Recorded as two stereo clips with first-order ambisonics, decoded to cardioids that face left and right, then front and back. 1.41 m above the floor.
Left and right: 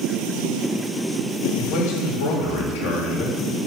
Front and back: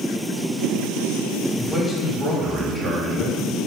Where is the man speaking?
85° left, 3.5 m.